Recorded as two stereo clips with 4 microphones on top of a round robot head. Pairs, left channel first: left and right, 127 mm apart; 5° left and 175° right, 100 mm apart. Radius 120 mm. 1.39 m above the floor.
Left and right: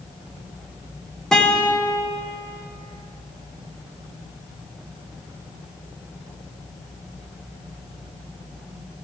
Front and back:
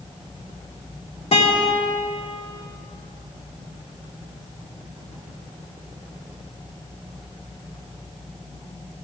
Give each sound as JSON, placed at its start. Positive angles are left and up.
{"t": 1.3, "sound": "a guitar", "azimuth_deg": 5, "distance_m": 2.0}